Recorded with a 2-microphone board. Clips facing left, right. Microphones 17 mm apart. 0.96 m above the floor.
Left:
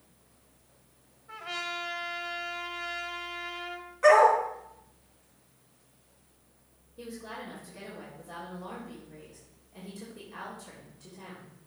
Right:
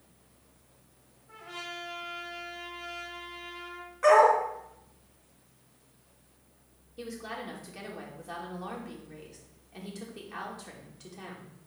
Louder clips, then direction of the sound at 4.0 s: Left 1 dB; centre (ahead or behind).